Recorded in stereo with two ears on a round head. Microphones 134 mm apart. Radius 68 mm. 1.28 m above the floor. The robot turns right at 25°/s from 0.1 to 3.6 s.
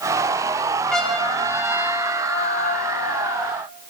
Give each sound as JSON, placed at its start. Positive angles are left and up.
{"t": 0.9, "sound": "a trumpet", "azimuth_deg": 5, "distance_m": 4.5}